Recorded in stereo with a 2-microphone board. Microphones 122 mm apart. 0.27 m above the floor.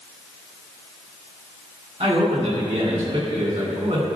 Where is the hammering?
I don't hear hammering.